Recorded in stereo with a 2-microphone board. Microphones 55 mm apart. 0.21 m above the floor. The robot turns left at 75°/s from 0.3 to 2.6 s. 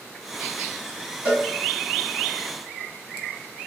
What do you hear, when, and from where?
1.2 s a cowbell: 45° right (ahead or behind), 1.4 m; by 1.5 s 50° right (ahead or behind), 1.4 m